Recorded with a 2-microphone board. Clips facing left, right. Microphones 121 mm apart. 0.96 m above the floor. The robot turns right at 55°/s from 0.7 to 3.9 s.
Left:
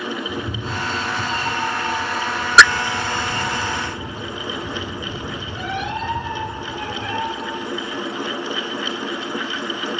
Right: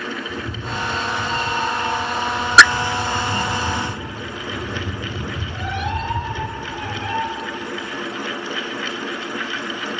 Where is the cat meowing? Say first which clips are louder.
Left 1 dB; 90° left, 1.6 m; by 7.2 s 90° right, 1.6 m.